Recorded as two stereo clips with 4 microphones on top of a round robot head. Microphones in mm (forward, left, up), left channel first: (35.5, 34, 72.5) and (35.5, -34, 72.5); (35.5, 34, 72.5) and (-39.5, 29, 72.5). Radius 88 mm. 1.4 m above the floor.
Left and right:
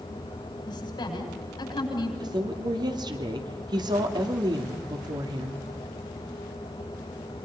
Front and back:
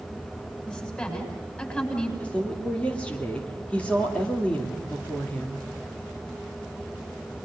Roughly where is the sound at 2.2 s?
Right.